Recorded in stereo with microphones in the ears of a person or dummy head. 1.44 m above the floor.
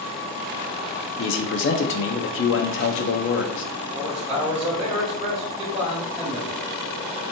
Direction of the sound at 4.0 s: 30° right (ahead or behind).